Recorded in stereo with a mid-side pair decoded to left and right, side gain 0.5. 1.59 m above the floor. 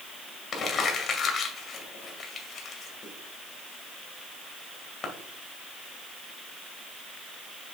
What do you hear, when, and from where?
0.5 s crumpling: 45° left, 2 m